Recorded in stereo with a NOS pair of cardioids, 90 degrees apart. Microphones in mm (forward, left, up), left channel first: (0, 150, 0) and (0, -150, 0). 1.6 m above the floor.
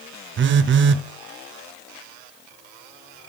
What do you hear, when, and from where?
0.4 s a phone buzzing: 40° right, 0.6 m